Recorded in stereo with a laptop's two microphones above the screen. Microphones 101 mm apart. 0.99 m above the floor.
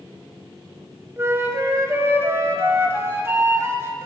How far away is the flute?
About 0.8 m.